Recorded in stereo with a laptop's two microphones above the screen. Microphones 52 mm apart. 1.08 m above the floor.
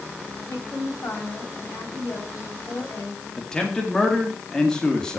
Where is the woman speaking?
70° left (ahead or behind), 5 m.